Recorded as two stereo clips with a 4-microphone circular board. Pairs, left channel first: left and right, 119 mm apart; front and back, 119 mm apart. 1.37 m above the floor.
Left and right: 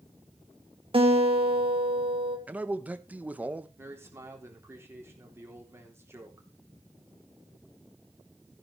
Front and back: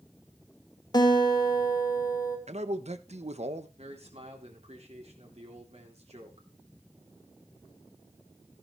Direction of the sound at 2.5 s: 165° right.